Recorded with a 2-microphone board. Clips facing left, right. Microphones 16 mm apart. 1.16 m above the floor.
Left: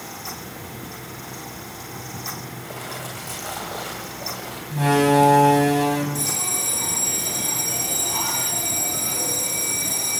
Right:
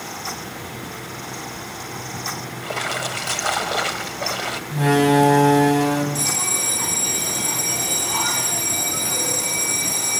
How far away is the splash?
About 2 m.